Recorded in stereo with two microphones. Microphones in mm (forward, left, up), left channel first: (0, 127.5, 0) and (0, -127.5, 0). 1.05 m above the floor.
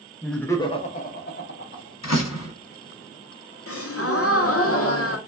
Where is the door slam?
85° left, 1.2 m.